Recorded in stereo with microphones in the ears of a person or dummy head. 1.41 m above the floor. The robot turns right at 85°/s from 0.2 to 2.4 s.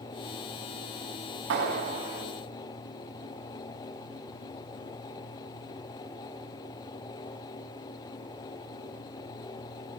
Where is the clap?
65° right, 9.5 m; by 2.3 s straight ahead, 9.5 m.